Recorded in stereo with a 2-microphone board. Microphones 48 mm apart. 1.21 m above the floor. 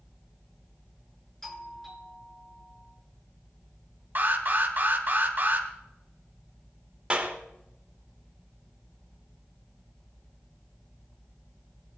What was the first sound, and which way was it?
A doorbell, 10° left (ahead or behind).